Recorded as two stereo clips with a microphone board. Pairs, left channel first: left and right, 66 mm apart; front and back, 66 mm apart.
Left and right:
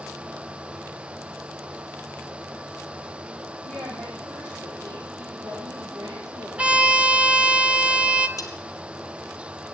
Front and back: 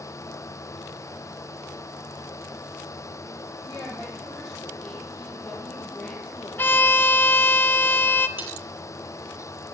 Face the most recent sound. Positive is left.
turn(degrees=120)